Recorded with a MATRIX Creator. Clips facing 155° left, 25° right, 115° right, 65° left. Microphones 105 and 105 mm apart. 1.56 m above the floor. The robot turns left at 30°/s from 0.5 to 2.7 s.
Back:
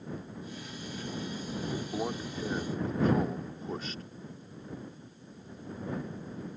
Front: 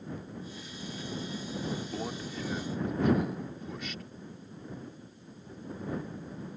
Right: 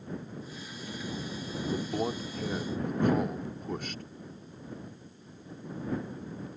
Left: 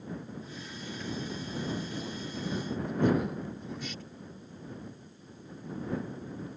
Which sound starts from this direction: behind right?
A man speaking, at 1.7 s.